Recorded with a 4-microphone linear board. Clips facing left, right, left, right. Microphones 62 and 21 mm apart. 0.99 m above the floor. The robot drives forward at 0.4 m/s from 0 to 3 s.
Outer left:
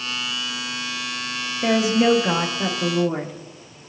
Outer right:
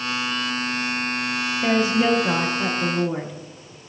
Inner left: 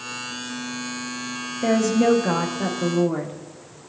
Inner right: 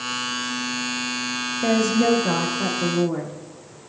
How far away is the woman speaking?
About 0.7 m.